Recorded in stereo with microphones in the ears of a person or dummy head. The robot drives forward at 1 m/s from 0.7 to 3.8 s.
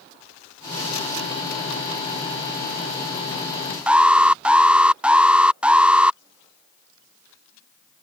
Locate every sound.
3.9 s an alarm: 5° right (ahead or behind)